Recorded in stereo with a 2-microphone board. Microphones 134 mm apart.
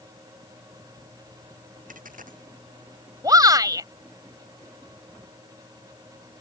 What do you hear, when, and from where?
1.9 s a dropped coin: 85° right
3.2 s a shout: 30° right (ahead or behind)